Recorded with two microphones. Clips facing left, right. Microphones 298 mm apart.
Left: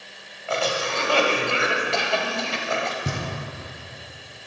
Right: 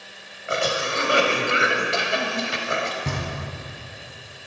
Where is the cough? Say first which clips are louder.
Even; 20° right (ahead or behind), 1.0 m.